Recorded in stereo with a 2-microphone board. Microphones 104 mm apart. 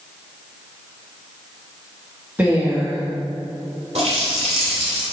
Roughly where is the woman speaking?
Centre.